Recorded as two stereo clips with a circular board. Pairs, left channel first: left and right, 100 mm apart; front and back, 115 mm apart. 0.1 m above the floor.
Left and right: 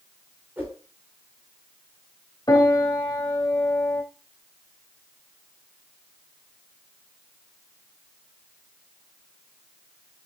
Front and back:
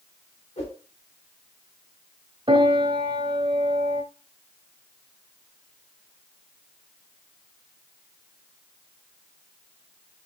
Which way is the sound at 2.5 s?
140° left.